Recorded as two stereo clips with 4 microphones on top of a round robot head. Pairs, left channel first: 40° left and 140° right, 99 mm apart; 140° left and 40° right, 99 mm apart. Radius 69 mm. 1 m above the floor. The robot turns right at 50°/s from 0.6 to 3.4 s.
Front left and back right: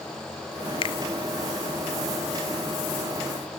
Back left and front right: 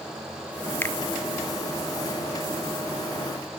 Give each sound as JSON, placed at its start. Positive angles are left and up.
{"t": 0.8, "sound": "a finger snap", "azimuth_deg": 70, "distance_m": 2.0}